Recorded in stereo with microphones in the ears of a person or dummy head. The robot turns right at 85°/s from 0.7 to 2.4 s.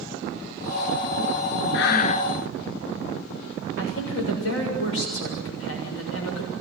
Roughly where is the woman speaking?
Left.